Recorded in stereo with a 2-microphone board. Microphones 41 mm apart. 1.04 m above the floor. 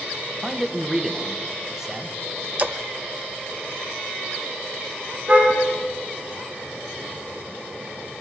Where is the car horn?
30° right (ahead or behind), 7 m.